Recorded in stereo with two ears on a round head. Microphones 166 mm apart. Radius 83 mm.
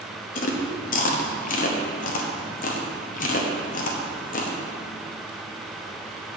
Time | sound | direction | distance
0.3 | chewing | 45° left (ahead or behind) | 0.8 m